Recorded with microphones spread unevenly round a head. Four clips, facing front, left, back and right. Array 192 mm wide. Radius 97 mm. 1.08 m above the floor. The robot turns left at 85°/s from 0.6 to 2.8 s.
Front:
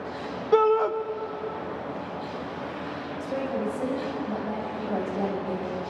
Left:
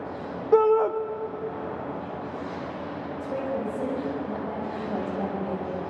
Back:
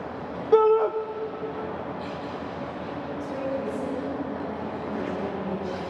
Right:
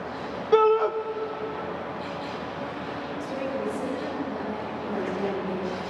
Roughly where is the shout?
Behind left.